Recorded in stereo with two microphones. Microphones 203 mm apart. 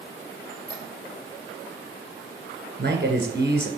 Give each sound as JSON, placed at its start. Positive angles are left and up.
{"t": 0.5, "sound": "a squeak", "side_deg": -45, "distance_m": 4.0}
{"t": 2.8, "sound": "a man speaking", "side_deg": -50, "distance_m": 1.7}